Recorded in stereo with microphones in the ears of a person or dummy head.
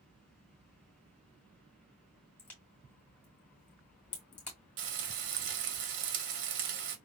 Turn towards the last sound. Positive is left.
turn(degrees=-65)  # may be behind; listen again after turning